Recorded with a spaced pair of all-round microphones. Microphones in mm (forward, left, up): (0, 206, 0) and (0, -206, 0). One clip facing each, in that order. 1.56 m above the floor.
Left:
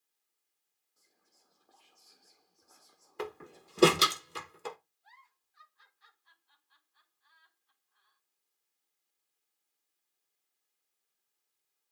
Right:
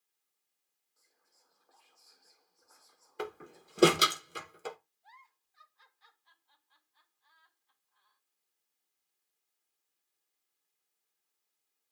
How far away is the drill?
I don't hear a drill.